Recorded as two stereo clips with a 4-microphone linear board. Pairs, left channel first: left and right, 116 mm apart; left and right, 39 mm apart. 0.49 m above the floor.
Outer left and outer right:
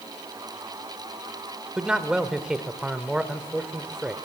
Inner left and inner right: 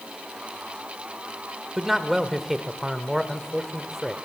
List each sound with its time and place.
1.8 s a man speaking: 5° right (ahead or behind), 1.3 m